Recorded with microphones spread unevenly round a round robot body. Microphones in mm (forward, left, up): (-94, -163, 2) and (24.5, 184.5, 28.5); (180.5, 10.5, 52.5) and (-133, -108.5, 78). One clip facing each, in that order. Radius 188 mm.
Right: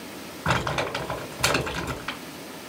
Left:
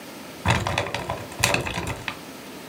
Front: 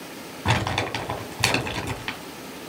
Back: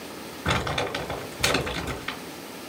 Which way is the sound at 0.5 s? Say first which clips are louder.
Left 1 dB, front 1 dB; 95° left.